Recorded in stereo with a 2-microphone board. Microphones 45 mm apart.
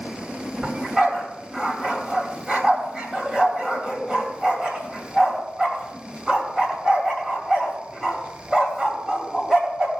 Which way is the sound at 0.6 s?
15° right (ahead or behind).